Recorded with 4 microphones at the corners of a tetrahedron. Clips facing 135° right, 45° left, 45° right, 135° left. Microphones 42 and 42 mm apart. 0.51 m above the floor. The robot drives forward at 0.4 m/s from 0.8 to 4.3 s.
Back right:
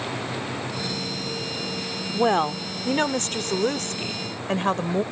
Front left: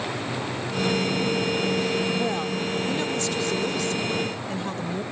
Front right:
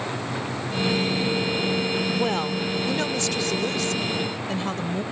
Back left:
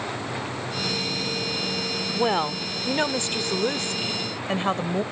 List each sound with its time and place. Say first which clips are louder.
2.1 s a woman speaking: back right 4 dB, back left 1 dB; 160° right; by 5.0 s 170° right